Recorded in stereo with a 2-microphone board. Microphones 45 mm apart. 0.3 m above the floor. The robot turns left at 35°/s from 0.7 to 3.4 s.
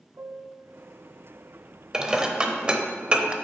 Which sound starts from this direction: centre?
Dishes clattering, at 1.9 s.